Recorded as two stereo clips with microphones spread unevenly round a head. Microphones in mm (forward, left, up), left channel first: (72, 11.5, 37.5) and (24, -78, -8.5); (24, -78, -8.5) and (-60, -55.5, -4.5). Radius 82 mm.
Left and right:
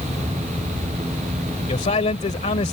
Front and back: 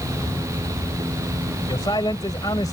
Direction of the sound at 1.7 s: 55° left.